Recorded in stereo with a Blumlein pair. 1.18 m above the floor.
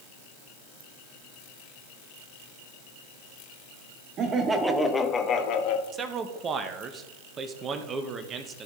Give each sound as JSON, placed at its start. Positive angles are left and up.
{"t": 4.2, "sound": "laughter", "azimuth_deg": -30, "distance_m": 1.2}
{"t": 5.9, "sound": "a man speaking", "azimuth_deg": -25, "distance_m": 1.2}